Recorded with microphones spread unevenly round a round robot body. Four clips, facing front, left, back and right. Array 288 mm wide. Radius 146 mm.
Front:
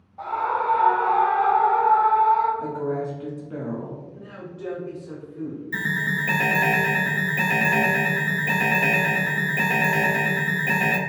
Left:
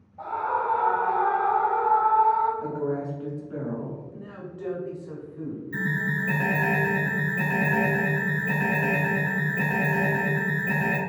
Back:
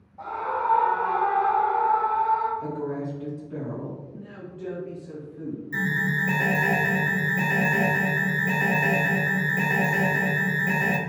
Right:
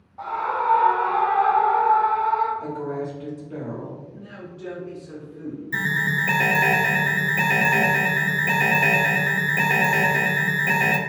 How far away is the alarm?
About 0.5 m.